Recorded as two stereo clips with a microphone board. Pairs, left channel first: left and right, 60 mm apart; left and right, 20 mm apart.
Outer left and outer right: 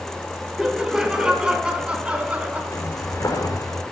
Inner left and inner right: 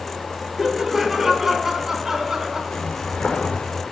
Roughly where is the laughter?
Centre.